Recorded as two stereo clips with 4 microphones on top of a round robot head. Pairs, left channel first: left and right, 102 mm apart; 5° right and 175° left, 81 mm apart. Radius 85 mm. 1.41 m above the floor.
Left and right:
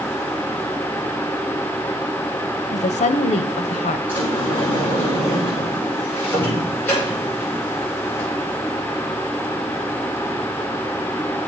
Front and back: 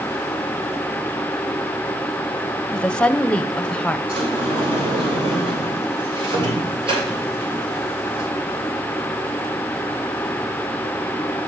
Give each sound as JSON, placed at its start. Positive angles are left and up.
{"t": 2.7, "sound": "a woman speaking", "azimuth_deg": 70, "distance_m": 0.7}
{"t": 4.1, "sound": "a sliding door", "azimuth_deg": 160, "distance_m": 7.0}